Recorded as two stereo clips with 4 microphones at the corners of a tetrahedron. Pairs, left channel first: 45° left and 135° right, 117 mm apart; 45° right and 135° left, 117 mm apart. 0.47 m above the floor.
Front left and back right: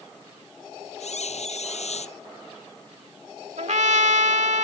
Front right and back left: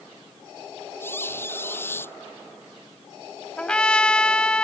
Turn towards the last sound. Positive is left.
turn(degrees=-125)